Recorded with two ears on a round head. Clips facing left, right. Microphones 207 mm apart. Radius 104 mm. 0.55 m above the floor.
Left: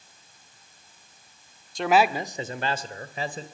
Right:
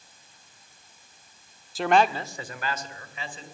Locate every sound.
1.8 s a man speaking: 5° right (ahead or behind), 1.1 m; by 3.5 s 35° left (ahead or behind), 2.5 m